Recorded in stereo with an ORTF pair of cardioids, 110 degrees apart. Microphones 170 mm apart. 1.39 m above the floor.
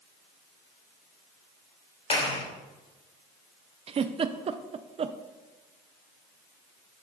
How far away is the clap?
About 3.5 m.